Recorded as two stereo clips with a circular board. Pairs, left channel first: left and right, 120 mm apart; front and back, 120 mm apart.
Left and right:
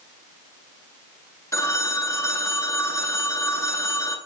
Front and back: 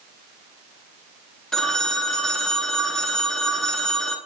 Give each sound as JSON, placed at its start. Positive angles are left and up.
{"t": 1.5, "sound": "a phone ringing", "azimuth_deg": 85, "distance_m": 1.0}